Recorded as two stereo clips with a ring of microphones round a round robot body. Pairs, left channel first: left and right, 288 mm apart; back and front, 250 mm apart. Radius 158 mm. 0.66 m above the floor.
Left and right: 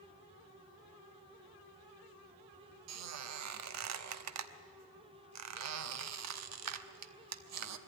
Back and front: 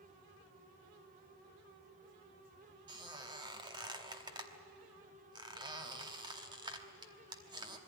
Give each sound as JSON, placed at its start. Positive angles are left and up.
{"t": 2.9, "sound": "a squeak", "azimuth_deg": -70, "distance_m": 1.0}